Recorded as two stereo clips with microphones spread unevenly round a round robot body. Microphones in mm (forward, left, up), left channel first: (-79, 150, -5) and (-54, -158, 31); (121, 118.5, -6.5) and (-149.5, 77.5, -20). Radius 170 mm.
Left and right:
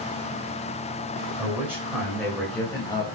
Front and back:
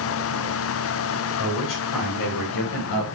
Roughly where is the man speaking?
Ahead.